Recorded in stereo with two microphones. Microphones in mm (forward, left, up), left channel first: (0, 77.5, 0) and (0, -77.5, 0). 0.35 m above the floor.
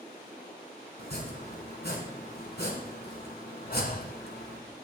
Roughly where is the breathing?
Left.